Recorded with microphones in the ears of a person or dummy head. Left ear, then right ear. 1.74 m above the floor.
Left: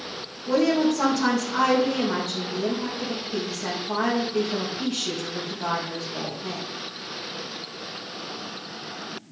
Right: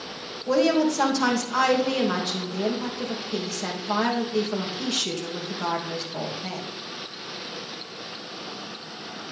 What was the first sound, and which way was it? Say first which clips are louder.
A woman speaking: right 1 dB; 85° right.